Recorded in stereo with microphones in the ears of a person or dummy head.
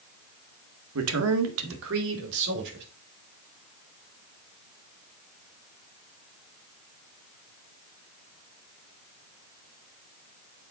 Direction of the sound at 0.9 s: 85° right.